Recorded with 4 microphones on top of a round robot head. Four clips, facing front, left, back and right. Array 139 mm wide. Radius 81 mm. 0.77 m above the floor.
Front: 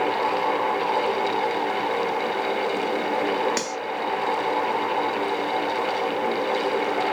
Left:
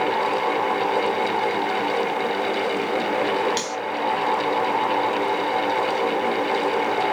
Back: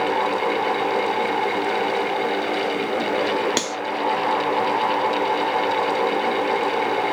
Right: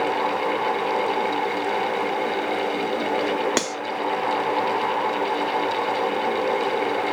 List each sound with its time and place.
3.6 s cutlery clinking: 115° right, 0.9 m